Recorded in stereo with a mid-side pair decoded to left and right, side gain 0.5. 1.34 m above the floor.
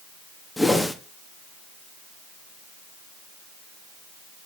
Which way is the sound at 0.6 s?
10° left.